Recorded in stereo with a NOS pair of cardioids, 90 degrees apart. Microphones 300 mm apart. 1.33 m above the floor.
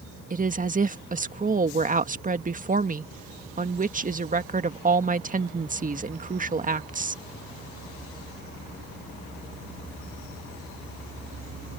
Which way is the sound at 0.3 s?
25° right.